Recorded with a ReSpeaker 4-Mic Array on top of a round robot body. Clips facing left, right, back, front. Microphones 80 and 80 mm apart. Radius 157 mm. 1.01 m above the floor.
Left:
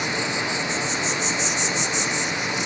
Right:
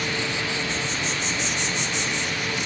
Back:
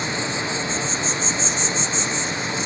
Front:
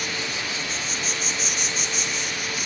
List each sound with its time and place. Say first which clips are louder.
0.0 s an insect: left 2 dB, back 5 dB; 140° left, 1.2 m